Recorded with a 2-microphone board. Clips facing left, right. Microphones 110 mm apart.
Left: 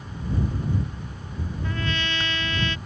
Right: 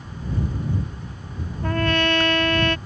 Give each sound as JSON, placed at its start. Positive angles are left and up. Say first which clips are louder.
{"t": 1.6, "sound": "a trumpet", "louder": "right 10 dB", "side_deg": -60}